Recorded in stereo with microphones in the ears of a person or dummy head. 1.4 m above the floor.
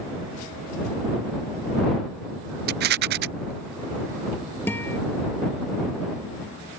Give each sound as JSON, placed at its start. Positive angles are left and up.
{"t": 2.7, "sound": "a rattle", "side_deg": -50}
{"t": 4.7, "sound": "a guitar", "side_deg": 10}